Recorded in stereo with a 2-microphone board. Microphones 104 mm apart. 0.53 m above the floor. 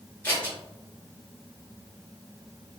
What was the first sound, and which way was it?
Scissors, 20° left (ahead or behind).